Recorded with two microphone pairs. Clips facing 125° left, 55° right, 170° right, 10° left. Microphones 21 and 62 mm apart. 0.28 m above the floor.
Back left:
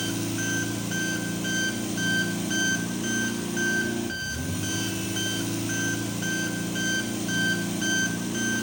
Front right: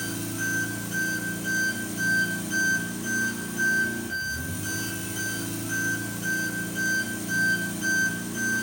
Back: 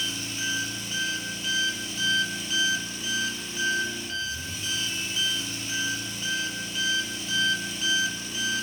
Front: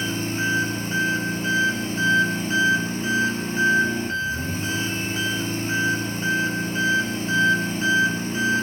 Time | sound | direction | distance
0.0 | an engine running | 60° left | 1.8 m